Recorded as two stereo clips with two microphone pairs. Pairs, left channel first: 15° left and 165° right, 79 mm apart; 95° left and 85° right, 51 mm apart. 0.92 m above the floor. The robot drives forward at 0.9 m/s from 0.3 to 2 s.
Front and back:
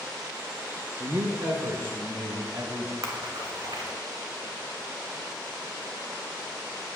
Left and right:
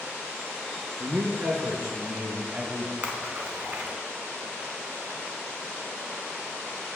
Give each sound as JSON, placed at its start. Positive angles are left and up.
{"t": 1.0, "sound": "a man speaking", "azimuth_deg": -110, "distance_m": 0.5}
{"t": 3.0, "sound": "a splash", "azimuth_deg": -145, "distance_m": 1.1}